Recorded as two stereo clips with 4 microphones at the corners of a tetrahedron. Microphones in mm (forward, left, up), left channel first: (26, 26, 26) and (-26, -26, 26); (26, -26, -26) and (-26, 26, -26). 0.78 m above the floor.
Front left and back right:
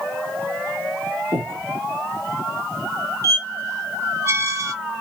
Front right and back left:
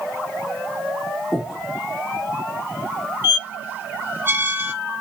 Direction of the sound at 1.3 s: 145° right.